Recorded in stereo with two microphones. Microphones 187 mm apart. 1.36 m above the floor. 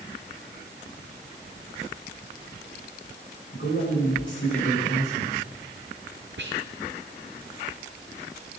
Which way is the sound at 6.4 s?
75° right (ahead or behind).